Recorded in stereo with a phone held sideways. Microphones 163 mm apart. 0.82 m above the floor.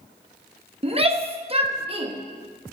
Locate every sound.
0.8 s a shout: 35° right (ahead or behind), 0.9 m